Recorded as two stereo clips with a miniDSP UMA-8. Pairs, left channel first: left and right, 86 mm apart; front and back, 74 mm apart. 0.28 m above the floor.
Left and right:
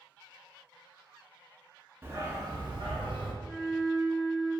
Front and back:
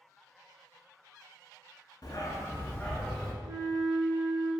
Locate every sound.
2.0 s a dog barking: 25° right, 0.6 m; by 3.3 s 85° right, 1.2 m
3.4 s a flute: 175° left, 1.1 m